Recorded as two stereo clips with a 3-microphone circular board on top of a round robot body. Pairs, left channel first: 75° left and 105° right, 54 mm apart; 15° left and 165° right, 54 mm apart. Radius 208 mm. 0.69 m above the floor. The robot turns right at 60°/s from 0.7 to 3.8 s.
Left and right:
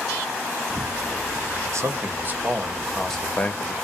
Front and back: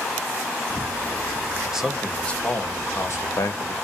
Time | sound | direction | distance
1.7 | a man speaking | 90° right | 1.1 m